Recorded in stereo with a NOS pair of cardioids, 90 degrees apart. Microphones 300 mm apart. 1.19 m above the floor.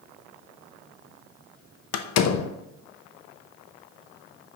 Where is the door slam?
60° left, 0.7 m.